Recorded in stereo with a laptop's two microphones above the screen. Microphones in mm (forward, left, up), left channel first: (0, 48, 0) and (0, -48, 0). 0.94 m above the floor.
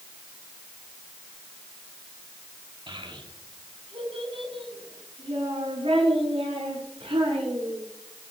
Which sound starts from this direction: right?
A child speaking, at 2.9 s.